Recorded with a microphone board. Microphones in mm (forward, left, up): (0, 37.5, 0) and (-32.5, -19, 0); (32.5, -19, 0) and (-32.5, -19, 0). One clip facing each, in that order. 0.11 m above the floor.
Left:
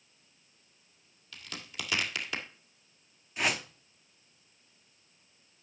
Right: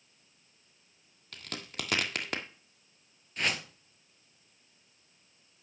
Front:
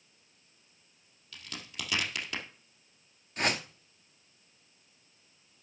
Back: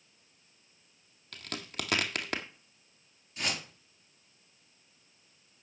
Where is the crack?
155° right, 1.6 m.